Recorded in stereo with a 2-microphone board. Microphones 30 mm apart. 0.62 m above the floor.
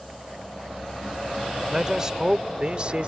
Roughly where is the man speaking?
Centre.